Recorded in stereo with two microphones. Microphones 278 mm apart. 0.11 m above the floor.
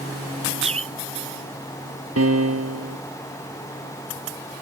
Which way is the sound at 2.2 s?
60° right (ahead or behind).